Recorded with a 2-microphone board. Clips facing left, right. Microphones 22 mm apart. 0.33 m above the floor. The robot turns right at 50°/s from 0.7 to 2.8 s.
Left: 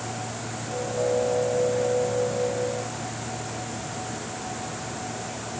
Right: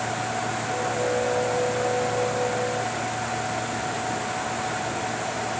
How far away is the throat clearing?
I don't hear throat clearing.